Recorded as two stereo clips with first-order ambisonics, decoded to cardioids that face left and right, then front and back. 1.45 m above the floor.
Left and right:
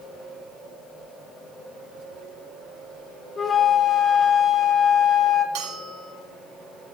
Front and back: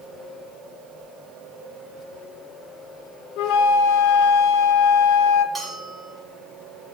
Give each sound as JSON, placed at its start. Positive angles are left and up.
{"t": 3.4, "sound": "a flute", "azimuth_deg": 20, "distance_m": 0.9}
{"t": 5.5, "sound": "a bell", "azimuth_deg": -90, "distance_m": 3.5}